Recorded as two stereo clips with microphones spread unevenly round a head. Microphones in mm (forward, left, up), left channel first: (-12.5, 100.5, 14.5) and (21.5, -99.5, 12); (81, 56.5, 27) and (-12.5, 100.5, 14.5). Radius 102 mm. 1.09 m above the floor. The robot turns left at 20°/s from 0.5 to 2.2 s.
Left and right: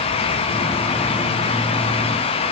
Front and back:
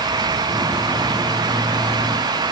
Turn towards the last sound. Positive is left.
No sound to turn to.